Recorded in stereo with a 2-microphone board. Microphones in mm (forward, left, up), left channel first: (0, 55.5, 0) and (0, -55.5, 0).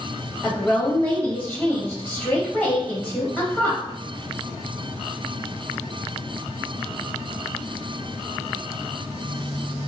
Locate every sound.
0.4 s a woman speaking: 10° left (ahead or behind), 0.6 m